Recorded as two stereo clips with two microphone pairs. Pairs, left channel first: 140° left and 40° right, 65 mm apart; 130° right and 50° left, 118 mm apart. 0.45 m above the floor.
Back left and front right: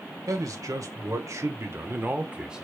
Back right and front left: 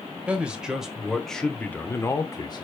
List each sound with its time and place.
0.3 s a man speaking: 30° right, 1.5 m; by 2.6 s 120° right, 0.8 m